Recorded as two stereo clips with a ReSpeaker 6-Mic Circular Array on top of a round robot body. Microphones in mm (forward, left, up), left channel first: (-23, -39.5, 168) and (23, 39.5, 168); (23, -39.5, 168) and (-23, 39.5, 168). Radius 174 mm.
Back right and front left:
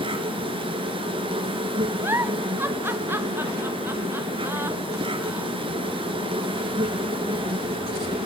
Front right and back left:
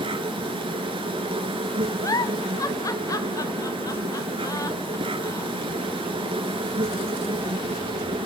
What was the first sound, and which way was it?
An insect, 90° left.